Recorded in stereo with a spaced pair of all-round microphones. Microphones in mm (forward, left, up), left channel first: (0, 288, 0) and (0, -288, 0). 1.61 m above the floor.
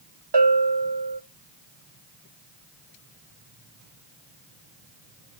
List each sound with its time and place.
0.3 s a bell: 45° right (ahead or behind), 1.2 m